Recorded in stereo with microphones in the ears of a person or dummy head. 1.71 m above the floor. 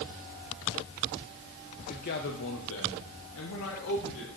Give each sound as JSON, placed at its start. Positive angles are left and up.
{"t": 1.9, "sound": "a man speaking", "side_deg": 40, "distance_m": 0.9}